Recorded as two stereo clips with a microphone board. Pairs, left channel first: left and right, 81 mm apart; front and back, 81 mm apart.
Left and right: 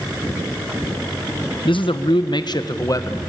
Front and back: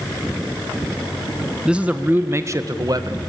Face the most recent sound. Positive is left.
turn(degrees=145)